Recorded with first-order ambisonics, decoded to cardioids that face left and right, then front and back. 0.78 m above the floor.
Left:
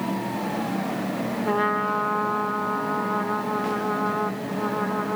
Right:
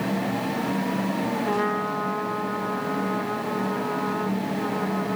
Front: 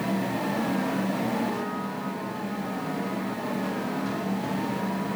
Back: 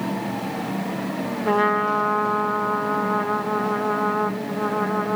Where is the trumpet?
175° left, 1.0 m.